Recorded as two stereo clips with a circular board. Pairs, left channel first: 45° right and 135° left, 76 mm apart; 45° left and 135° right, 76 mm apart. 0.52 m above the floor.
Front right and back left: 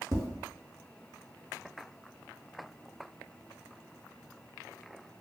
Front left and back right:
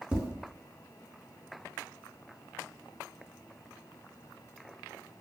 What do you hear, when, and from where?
0.1 s tapping: 150° left, 0.7 m